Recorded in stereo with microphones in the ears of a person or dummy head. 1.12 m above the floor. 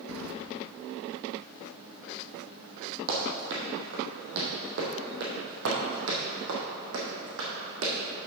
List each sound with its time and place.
0.1 s keys jangling: 85° right, 0.8 m
3.1 s running footsteps: 45° right (ahead or behind), 3.5 m; by 7.9 s 75° right (ahead or behind), 4.5 m